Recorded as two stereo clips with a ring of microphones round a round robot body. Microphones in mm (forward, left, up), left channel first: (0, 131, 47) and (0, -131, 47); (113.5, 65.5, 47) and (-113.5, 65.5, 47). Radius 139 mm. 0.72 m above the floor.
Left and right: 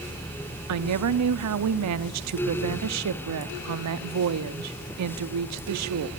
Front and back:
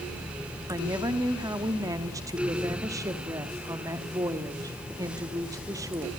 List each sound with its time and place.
0.7 s a woman speaking: 105° right, 1.1 m